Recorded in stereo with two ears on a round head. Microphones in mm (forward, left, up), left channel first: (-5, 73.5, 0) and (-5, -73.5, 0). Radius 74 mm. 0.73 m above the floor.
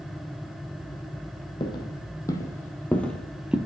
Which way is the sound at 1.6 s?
30° left (ahead or behind).